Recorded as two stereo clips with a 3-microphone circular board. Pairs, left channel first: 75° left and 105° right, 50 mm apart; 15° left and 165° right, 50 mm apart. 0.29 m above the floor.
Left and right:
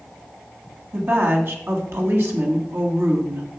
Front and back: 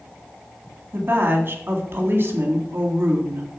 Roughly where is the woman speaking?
Behind right.